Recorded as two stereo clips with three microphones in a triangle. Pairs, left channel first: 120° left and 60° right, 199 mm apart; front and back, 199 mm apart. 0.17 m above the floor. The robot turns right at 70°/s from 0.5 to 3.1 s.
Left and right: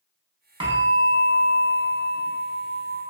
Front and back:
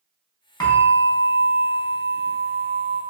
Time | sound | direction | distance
0.6 | a bell | 45° right | 0.7 m